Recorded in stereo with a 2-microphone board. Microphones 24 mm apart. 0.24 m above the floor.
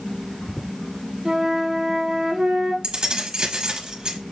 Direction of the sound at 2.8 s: 35° right (ahead or behind).